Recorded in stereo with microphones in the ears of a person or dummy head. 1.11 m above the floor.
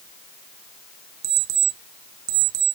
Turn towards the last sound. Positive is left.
turn(degrees=-70)  # may be behind; listen again after turning